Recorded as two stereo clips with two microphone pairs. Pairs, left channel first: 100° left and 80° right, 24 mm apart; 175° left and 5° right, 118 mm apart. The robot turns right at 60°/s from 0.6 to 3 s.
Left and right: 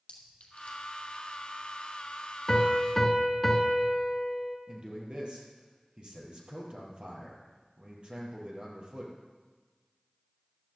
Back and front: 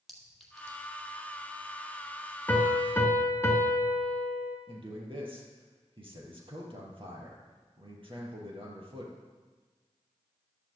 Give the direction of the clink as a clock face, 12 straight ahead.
9 o'clock.